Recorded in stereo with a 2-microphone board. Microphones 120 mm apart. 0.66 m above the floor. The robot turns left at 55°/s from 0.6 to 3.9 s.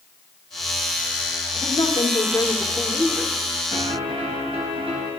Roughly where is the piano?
Right.